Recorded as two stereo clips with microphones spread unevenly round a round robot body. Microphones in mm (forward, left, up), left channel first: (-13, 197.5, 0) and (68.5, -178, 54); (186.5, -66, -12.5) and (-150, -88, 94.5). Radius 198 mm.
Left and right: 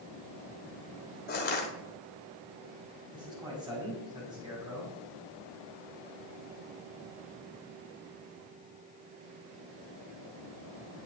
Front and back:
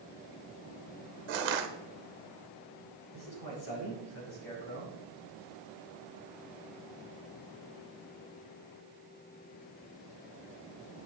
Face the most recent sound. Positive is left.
turn(degrees=5)